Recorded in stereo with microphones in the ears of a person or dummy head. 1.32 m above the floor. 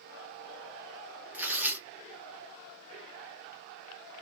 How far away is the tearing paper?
About 0.7 m.